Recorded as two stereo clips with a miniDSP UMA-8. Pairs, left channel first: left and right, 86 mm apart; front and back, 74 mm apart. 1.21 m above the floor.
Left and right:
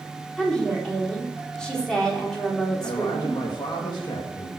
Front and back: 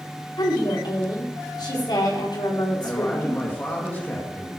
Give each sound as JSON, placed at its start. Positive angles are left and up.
{"t": 0.4, "sound": "a woman speaking", "azimuth_deg": 10, "distance_m": 4.0}
{"t": 2.8, "sound": "a man speaking", "azimuth_deg": 65, "distance_m": 1.8}